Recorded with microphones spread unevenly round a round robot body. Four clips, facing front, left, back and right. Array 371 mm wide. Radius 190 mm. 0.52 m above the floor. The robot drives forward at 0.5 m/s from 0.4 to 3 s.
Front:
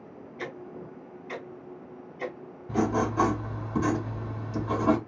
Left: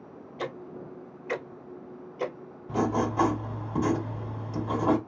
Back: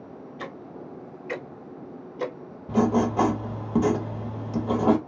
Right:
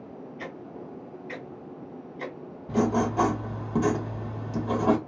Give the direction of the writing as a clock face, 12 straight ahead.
5 o'clock.